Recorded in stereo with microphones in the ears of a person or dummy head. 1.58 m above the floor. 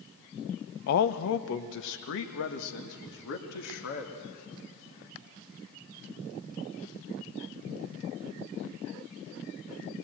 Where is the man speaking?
60° left (ahead or behind), 0.7 m; by 4.1 s 75° left (ahead or behind), 3.5 m.